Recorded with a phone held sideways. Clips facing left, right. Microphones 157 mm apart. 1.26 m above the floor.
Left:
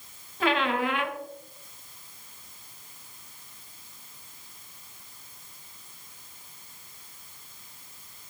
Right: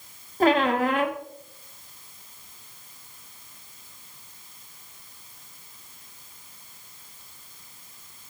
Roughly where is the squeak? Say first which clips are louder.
Right 6 dB; right.